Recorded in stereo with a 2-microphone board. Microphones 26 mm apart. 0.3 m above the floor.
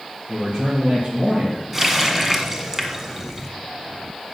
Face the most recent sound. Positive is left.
turn(degrees=-15)  # may be behind; listen again after turning